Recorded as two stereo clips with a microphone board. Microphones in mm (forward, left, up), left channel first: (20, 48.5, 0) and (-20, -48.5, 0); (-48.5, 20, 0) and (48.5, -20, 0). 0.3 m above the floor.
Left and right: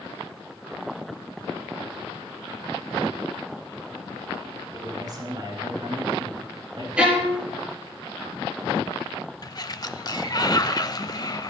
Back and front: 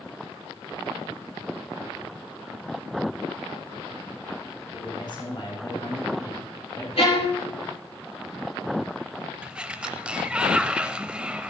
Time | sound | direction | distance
4.7 | a man speaking | 165° right | 7.5 m
7.0 | a violin | 170° left | 4 m
9.4 | a sliding door | 55° left | 0.7 m